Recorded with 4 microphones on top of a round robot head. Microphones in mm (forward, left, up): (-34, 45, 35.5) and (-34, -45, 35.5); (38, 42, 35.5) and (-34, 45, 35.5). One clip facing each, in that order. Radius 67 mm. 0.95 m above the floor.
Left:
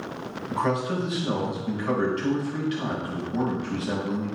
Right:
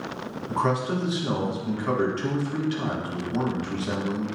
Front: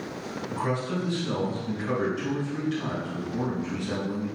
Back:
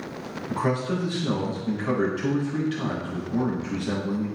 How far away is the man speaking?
About 3 m.